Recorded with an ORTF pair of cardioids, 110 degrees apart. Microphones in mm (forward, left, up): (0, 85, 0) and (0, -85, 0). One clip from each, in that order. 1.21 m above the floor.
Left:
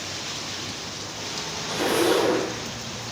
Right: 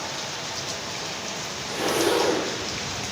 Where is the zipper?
10° left, 0.6 m.